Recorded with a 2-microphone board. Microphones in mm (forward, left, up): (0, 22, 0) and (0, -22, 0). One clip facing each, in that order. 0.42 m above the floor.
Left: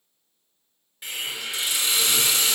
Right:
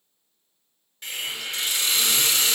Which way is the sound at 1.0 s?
10° left (ahead or behind).